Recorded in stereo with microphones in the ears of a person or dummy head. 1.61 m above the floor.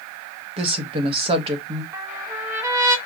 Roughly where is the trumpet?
Centre.